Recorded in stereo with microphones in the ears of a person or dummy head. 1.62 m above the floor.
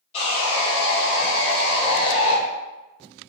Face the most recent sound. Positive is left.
turn(degrees=30)  # may be behind; listen again after turning